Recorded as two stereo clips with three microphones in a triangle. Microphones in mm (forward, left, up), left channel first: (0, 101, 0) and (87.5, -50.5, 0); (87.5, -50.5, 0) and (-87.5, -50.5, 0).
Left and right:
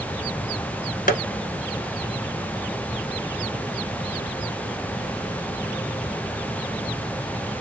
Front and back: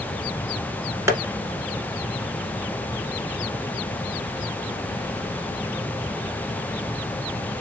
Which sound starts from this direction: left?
Tapping, at 1.1 s.